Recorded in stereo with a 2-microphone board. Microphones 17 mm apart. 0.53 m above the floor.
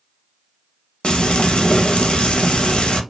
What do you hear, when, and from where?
1.0 s frying: 80° left, 0.6 m